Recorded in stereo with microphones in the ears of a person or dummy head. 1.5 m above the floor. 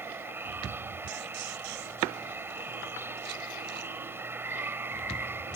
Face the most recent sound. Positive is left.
turn(degrees=-15)  # may be behind; listen again after turning